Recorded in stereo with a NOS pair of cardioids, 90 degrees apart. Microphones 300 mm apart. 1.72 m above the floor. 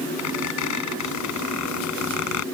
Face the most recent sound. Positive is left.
turn(degrees=70)